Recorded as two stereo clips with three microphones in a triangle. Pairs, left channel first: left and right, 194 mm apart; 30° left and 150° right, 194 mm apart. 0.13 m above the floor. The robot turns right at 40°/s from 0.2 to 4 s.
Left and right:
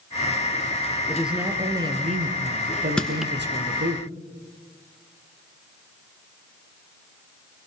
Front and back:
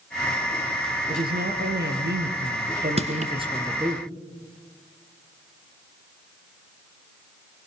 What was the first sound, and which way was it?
A woman speaking, 175° left.